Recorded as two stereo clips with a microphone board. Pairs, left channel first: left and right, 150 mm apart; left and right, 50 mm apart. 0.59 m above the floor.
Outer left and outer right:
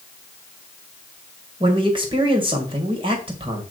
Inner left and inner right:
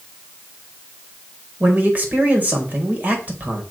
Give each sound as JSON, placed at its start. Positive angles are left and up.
{"t": 1.6, "sound": "a man speaking", "side_deg": -35, "distance_m": 2.5}